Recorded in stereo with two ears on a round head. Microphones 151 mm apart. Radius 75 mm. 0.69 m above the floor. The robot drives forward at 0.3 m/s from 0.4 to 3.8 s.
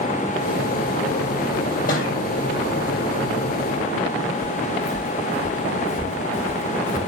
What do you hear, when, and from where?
1.9 s a thud: 50° left (ahead or behind), 7.5 m
4.4 s footsteps: centre (ahead or behind), 4 m; by 7.0 s 25° left (ahead or behind), 3.5 m